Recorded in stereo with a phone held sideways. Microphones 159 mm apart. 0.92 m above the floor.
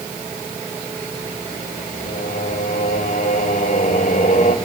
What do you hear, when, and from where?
2.0 s singing: 60° left (ahead or behind), 2 m